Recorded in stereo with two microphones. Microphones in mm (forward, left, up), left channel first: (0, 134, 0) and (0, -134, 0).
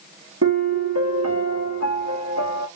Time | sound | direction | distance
0.4 | a piano | 65° right (ahead or behind) | 0.8 m